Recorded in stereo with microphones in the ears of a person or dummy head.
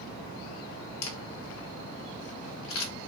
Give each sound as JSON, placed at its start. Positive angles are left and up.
{"t": 1.0, "sound": "a camera shutter", "side_deg": 70, "distance_m": 1.1}